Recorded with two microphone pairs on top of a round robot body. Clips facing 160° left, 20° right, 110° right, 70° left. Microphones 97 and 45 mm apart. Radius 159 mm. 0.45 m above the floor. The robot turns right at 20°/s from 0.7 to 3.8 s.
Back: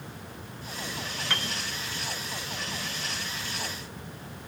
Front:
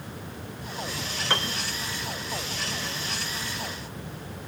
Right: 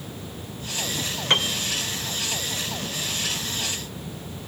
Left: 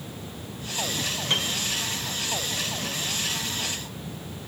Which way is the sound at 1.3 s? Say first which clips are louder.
Front 6 dB, right 5 dB; 65° right.